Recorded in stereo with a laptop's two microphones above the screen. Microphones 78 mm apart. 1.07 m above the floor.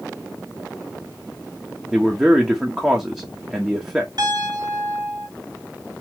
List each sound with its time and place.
1.9 s a man speaking: 10° right (ahead or behind), 1.3 m
4.2 s a piano: 60° right (ahead or behind), 2.5 m